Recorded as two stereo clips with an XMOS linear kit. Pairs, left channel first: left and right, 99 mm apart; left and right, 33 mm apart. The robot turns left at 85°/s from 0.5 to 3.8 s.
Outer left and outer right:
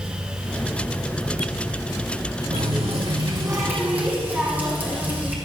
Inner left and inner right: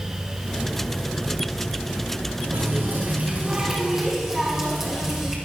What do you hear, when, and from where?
2.5 s a running tap: 55° right, 5 m; by 5.3 s 165° right, 5 m